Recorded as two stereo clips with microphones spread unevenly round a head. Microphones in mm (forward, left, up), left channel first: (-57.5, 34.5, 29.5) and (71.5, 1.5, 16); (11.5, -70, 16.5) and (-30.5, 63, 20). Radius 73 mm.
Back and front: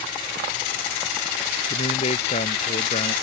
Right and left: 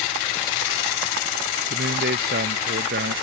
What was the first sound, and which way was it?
A man speaking, 125° left.